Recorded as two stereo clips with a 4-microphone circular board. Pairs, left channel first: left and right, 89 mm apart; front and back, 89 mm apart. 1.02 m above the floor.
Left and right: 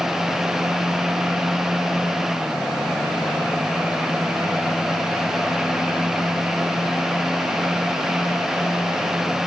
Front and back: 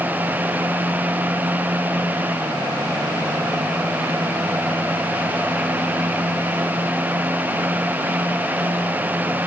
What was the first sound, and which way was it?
Only background noise.